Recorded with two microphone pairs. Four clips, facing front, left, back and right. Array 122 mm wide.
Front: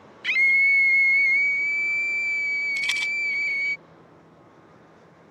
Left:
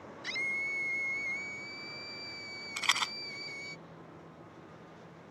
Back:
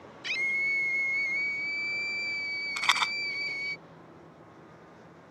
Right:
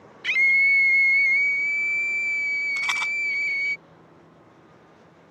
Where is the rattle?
170° right.